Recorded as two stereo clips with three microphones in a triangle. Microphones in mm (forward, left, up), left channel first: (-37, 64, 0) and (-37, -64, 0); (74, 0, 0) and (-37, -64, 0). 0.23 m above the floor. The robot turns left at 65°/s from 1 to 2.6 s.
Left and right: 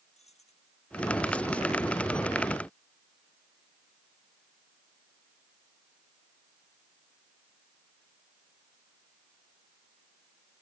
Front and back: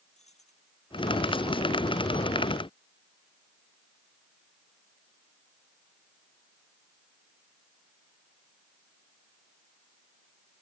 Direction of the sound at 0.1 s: 60° left.